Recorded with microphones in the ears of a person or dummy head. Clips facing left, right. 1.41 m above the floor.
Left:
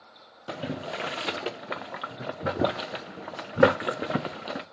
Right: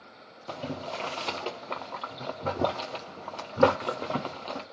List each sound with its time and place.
0.5 s boiling: 20° left (ahead or behind), 0.5 m